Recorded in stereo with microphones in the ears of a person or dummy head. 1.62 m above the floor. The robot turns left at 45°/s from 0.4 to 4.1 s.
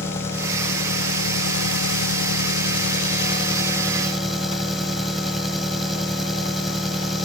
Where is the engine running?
170° left; by 7.3 s straight ahead.